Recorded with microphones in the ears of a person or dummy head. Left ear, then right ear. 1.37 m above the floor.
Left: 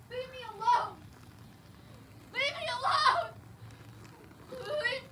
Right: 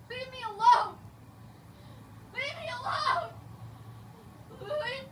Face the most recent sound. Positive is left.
turn(degrees=75)  # may be behind; listen again after turning